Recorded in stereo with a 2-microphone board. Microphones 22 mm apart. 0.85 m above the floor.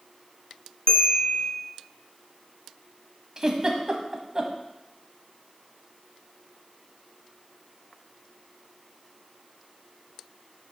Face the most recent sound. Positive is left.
turn(degrees=-25)  # may be behind; listen again after turning